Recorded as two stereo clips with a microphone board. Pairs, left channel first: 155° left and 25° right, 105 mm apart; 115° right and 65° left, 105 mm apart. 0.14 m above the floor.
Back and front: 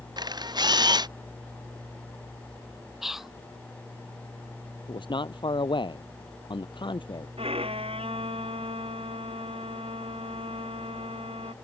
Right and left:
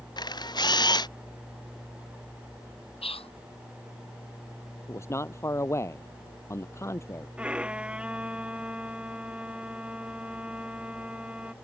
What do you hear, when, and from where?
0.2 s a camera shutter: 65° right
3.0 s whispering: 110° right
4.9 s a man speaking: 170° right
7.4 s a violin: 10° right